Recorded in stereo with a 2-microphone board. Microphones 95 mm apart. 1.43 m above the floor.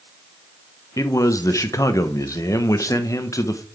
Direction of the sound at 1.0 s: 35° left (ahead or behind).